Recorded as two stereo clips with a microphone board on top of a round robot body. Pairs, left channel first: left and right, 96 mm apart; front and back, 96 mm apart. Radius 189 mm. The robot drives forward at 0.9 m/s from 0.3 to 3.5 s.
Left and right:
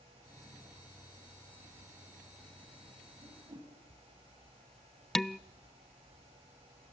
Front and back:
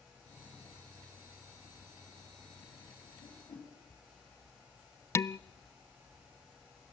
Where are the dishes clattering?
10° left, 0.6 m.